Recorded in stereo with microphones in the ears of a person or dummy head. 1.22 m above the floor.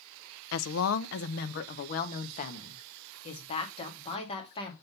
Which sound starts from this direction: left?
A woman speaking, at 0.5 s.